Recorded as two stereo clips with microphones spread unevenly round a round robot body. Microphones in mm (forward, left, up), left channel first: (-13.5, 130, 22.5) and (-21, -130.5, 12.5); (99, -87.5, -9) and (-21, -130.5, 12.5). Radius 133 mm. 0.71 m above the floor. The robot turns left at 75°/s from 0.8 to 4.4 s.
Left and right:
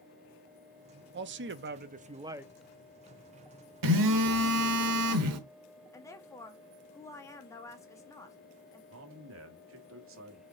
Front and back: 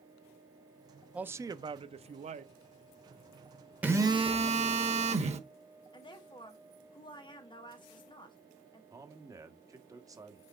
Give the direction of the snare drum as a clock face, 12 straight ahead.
I don't hear a snare drum.